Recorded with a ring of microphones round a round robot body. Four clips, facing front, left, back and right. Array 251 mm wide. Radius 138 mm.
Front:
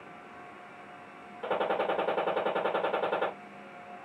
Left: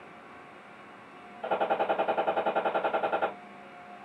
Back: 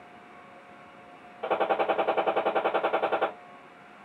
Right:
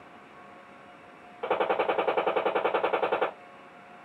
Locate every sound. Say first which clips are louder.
1.4 s a gunshot: right 1 dB, back 4 dB; 105° right, 2.5 m